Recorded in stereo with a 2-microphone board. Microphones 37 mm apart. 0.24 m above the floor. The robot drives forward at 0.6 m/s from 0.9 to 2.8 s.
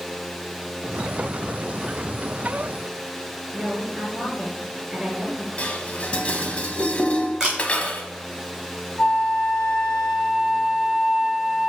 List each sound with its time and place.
3.5 s a woman speaking: 15° right (ahead or behind), 3.5 m
5.6 s dishes clattering: 40° left (ahead or behind), 0.9 m
7.4 s a camera shutter: 15° right (ahead or behind), 3.5 m
9.0 s a flute: 30° left (ahead or behind), 2 m